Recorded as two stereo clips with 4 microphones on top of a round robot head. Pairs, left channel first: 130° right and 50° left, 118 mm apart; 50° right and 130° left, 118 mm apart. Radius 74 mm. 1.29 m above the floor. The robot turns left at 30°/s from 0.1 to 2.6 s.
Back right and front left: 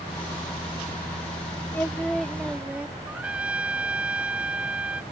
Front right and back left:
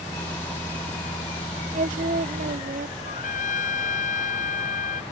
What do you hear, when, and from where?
1.7 s singing: 155° left; by 3.0 s 130° left
3.0 s a trumpet: 30° right